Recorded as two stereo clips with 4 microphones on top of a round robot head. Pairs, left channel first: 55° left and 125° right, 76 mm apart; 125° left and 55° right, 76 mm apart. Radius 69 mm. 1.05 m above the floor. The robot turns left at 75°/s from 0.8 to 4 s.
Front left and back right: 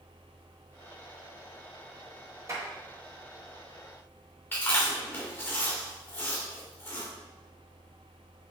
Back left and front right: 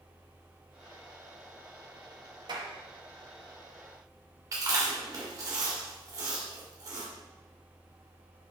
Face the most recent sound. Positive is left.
turn(degrees=-5)